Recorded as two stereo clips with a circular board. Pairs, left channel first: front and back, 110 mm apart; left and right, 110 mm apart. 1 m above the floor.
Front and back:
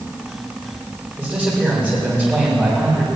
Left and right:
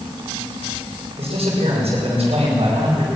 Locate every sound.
1.2 s a man speaking: 105° right, 4.5 m